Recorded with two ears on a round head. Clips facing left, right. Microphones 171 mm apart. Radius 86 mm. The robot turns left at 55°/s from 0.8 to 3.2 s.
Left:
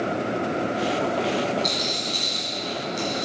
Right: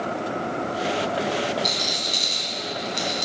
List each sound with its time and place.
1.6 s a rattle: centre (ahead or behind), 1.9 m; by 3.3 s 75° right (ahead or behind), 1.9 m